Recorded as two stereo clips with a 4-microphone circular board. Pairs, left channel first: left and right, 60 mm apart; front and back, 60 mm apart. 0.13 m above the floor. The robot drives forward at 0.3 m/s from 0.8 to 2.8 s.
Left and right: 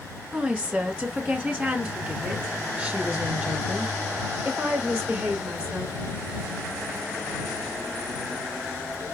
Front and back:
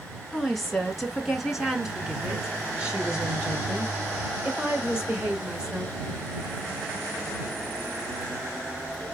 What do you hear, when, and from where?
0.3 s a woman speaking: 85° right, 1.6 m; by 5.9 s 130° right, 1.7 m